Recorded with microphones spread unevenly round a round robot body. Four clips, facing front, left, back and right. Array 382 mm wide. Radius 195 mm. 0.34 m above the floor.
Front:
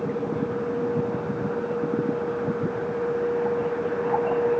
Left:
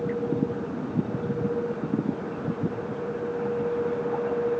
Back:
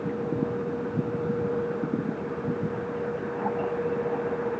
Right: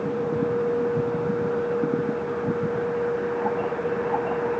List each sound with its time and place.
Only background noise.